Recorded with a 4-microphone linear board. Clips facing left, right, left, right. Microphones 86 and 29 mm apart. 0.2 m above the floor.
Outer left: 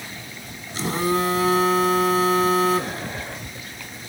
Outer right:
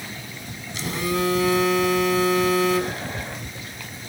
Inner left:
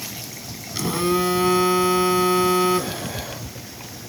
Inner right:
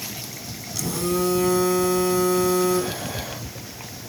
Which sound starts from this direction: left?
A phone buzzing, at 0.8 s.